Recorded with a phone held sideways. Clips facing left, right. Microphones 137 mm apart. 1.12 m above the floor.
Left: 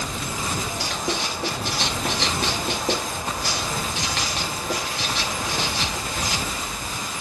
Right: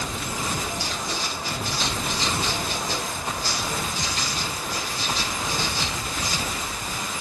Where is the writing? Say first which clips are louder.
Left 3 dB; 65° left (ahead or behind), 1.5 m.